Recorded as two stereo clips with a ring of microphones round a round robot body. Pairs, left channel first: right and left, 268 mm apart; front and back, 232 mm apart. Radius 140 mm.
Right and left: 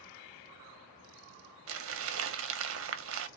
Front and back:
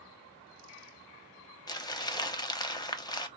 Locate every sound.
1.7 s crumpling: 70° left, 0.7 m